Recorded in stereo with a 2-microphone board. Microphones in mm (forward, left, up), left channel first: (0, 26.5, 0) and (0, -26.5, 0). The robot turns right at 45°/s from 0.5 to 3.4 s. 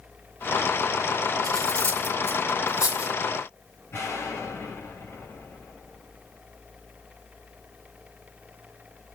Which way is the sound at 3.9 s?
60° left (ahead or behind).